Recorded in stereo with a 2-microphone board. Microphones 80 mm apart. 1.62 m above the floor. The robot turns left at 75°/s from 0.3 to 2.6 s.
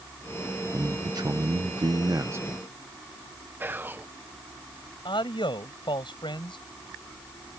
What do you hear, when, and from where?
0.7 s a man speaking: 25° right; by 2.6 s 165° right
3.6 s whispering: 25° right (ahead or behind)
5.0 s a man speaking: 85° left